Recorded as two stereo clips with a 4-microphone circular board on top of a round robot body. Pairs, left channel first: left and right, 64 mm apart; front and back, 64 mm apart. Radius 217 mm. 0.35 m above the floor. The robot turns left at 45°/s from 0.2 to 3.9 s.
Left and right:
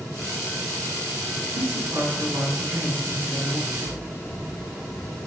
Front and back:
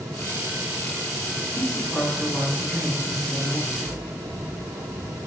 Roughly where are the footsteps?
Behind right.